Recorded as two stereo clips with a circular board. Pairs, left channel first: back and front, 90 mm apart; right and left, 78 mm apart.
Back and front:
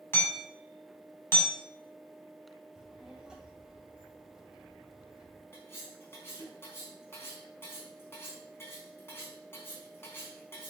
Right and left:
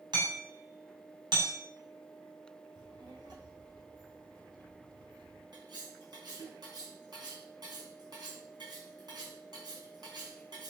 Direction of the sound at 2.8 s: 80° left.